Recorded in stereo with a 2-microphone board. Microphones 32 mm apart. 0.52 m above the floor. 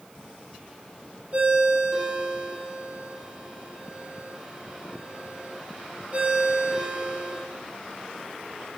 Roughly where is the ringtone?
Right.